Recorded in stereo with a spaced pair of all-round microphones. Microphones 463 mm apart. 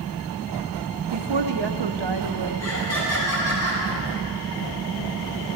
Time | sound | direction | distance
1.1 | a woman speaking | 65° right (ahead or behind) | 0.6 m
2.6 | laughter | 30° left (ahead or behind) | 3 m